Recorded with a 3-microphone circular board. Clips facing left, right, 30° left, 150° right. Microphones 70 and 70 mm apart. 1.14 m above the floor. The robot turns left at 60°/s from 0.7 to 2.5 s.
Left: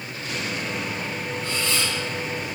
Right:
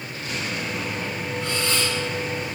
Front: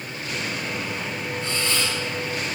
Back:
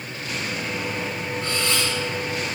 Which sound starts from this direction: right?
A camera shutter, at 1.4 s.